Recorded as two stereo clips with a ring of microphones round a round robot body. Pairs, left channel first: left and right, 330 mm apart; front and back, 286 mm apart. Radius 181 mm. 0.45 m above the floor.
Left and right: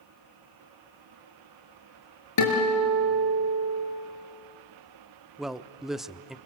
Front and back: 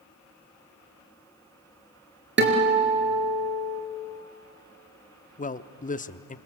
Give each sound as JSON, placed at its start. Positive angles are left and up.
{"t": 2.4, "sound": "a guitar", "azimuth_deg": 130, "distance_m": 4.0}
{"t": 5.4, "sound": "a man speaking", "azimuth_deg": -5, "distance_m": 0.7}